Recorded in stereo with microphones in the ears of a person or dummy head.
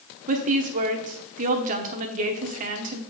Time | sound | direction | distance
0.3 | a woman speaking | 45° right (ahead or behind) | 0.9 m